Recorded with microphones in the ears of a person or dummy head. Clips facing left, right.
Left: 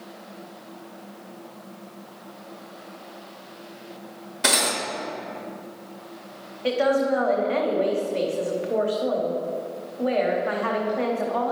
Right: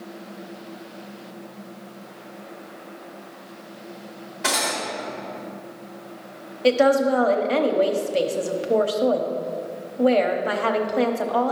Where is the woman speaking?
50° right (ahead or behind), 0.7 m.